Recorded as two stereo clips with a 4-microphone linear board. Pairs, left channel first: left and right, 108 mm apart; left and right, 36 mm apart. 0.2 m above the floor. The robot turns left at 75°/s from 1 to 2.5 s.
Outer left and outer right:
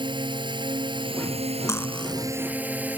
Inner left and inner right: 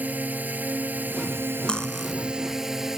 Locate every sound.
0.0 s a drone: 50° right; by 3.0 s 165° right
1.7 s cutlery clinking: 30° left (ahead or behind); by 2.1 s centre (ahead or behind)